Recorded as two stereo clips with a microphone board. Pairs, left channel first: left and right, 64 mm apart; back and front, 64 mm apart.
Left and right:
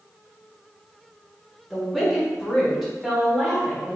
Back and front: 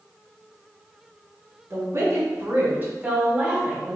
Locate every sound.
1.7 s a woman speaking: 5° left, 1.8 m; by 4.0 s 15° right, 1.2 m